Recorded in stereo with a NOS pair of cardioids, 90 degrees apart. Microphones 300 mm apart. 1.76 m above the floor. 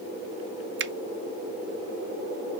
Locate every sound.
0.8 s a finger snap: 40° right, 0.8 m